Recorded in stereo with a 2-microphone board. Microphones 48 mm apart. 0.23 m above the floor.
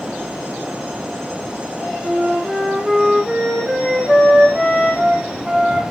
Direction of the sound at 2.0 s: 10° right (ahead or behind).